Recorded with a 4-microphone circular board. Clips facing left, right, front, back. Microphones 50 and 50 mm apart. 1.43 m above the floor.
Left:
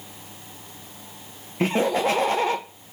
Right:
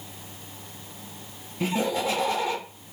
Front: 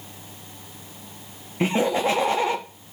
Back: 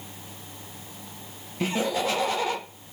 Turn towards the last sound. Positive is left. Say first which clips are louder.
# left 4 dB, front 5 dB
turn(degrees=55)